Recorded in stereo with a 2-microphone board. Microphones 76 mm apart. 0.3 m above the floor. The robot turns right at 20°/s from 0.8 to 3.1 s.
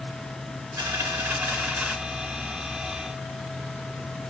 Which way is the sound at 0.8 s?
45° right (ahead or behind).